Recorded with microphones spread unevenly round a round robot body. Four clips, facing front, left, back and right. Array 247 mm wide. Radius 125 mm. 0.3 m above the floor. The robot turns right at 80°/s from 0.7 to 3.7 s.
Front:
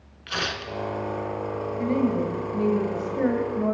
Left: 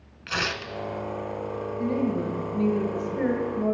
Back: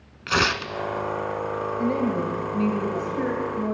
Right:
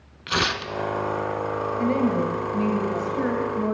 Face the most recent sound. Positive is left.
turn(degrees=40)